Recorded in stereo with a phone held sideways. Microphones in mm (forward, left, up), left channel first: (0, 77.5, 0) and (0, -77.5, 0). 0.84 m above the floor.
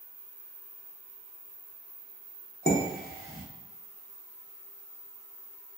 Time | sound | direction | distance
2.7 | dishes clattering | 75° left (ahead or behind) | 0.9 m